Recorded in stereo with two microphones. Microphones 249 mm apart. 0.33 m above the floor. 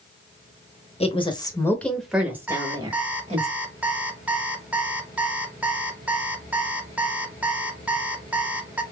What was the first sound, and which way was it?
A woman speaking, 25° left (ahead or behind).